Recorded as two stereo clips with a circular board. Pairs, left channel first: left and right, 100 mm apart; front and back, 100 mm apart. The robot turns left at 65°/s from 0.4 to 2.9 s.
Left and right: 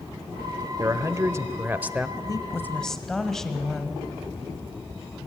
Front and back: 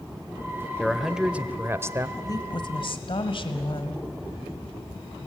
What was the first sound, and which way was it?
A man speaking, 80° right.